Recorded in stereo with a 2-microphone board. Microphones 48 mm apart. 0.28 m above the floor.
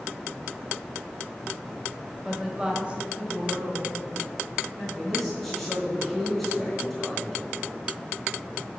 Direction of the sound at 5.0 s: 5° right (ahead or behind).